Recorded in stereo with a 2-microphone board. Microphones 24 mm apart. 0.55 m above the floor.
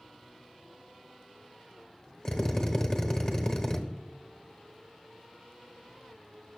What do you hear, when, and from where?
2.2 s a drill: 35° left (ahead or behind), 1.0 m